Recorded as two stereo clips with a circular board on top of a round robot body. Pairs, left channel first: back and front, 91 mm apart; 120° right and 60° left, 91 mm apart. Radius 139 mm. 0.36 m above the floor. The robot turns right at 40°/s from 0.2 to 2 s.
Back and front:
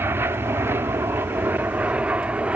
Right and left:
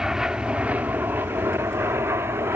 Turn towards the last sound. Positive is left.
turn(degrees=55)